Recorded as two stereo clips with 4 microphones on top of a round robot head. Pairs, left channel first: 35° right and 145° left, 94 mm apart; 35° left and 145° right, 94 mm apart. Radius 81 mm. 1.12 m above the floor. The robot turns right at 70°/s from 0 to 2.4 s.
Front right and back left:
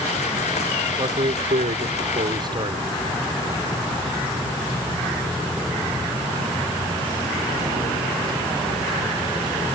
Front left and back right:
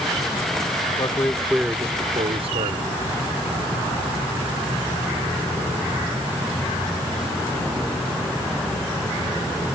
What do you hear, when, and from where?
1.0 s a man speaking: 90° left; by 2.9 s 170° right